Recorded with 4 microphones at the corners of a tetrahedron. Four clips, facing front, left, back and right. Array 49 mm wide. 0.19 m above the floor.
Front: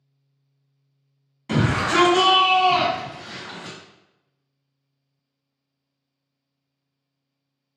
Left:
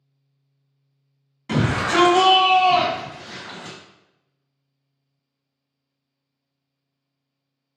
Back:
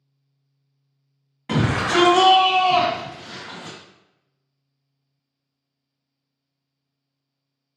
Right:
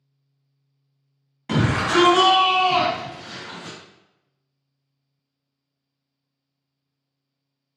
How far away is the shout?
About 1.3 m.